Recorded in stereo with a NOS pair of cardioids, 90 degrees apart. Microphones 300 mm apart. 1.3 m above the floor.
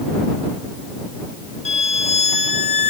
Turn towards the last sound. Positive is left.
turn(degrees=20)